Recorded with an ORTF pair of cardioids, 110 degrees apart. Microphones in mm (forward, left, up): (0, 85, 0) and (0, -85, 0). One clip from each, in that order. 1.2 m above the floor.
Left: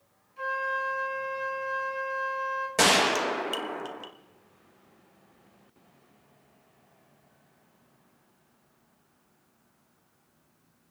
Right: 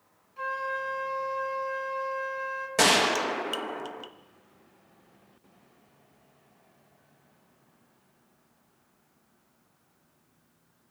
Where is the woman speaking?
I don't hear a woman speaking.